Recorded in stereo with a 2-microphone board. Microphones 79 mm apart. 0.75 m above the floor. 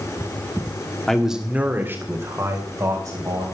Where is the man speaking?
5° left (ahead or behind), 1.3 m; by 3.4 s 45° right (ahead or behind), 4.5 m.